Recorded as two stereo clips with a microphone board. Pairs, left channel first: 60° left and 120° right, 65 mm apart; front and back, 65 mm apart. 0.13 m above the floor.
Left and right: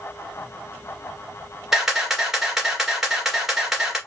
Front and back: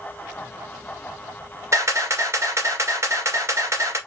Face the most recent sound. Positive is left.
turn(degrees=155)